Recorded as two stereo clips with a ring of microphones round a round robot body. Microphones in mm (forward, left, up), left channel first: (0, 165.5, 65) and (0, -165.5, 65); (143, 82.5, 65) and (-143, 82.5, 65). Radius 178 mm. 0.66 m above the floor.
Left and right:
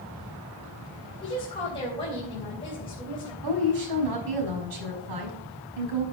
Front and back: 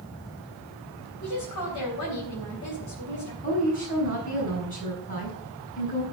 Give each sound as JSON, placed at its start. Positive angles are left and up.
{"t": 1.2, "sound": "a woman speaking", "azimuth_deg": 15, "distance_m": 4.0}
{"t": 3.4, "sound": "a woman speaking", "azimuth_deg": -65, "distance_m": 5.0}